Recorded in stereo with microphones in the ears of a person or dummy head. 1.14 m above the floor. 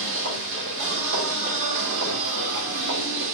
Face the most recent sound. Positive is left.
turn(degrees=-70)  # may be behind; listen again after turning